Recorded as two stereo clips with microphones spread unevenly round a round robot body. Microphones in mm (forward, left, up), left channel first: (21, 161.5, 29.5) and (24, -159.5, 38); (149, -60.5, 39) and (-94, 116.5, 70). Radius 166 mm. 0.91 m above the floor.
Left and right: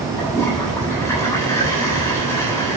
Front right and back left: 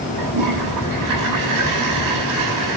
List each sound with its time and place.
0.2 s a toilet flushing: 175° left, 9 m